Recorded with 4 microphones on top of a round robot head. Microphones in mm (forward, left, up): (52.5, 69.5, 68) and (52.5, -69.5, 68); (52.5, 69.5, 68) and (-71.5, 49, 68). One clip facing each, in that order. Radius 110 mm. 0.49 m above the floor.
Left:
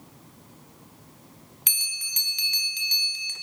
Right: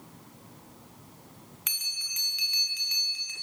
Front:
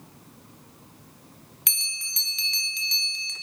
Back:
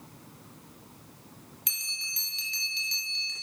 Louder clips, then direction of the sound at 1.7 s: Left 3 dB, front 3 dB; 35° left.